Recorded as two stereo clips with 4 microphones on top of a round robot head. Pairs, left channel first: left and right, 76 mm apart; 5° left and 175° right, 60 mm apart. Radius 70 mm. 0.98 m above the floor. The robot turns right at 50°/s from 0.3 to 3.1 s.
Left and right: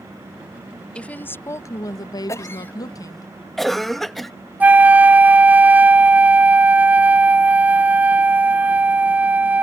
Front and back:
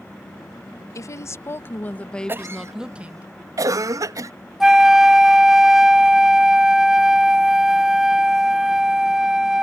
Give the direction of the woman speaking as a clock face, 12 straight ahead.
11 o'clock.